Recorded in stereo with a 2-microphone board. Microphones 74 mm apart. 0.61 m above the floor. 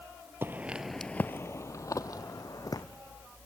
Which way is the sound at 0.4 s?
30° right (ahead or behind).